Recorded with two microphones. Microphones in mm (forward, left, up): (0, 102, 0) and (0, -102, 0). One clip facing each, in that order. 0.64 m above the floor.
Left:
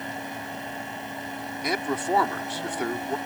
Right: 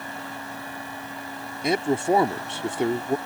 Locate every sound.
1.6 s a man speaking: 25° right (ahead or behind)